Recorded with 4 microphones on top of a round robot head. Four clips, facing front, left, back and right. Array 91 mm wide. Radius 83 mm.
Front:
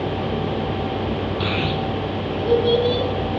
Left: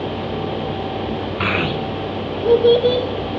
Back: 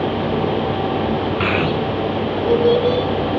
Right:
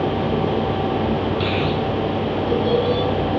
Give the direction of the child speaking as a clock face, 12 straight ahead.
7 o'clock.